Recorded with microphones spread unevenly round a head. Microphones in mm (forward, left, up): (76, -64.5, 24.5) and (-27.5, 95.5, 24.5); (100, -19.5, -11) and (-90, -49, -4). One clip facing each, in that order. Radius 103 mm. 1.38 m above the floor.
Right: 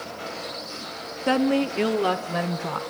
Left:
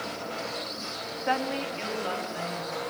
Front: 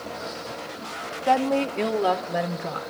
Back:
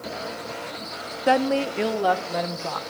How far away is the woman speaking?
About 1.0 m.